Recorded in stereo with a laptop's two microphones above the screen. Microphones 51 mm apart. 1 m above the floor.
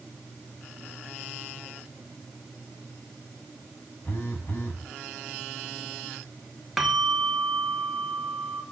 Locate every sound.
4.0 s a phone buzzing: 35° left (ahead or behind), 6 m
6.8 s a bell: 10° right (ahead or behind), 2.5 m